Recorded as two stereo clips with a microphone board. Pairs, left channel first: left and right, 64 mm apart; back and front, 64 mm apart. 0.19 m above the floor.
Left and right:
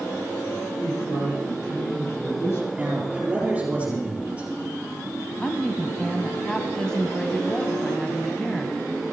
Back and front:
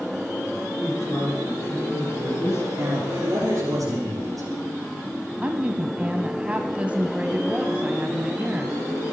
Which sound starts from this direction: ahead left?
A woman speaking, at 5.4 s.